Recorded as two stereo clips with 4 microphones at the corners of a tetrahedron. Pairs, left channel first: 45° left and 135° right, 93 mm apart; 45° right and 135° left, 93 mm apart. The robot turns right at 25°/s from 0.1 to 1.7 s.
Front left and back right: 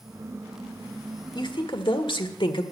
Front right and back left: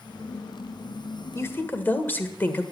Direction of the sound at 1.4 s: 15° left.